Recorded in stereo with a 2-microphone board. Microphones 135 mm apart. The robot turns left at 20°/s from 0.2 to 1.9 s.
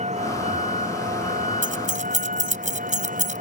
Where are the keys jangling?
75° right (ahead or behind); by 3.4 s 70° right (ahead or behind).